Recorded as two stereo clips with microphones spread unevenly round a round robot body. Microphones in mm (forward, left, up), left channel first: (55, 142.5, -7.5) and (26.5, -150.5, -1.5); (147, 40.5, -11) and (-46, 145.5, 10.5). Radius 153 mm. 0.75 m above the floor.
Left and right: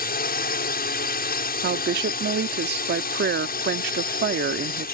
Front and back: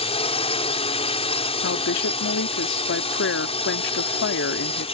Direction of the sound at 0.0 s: 30° left.